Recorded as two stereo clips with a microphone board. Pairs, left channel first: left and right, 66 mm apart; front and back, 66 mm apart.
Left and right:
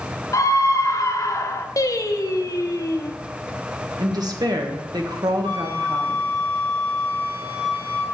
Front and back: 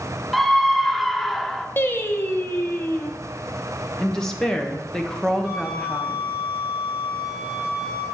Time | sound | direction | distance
0.3 | a scream | 90° left | 0.7 m
1.8 | singing | 55° left | 0.6 m
4.0 | a woman speaking | 80° right | 1.0 m
5.4 | a flute | 105° right | 1.8 m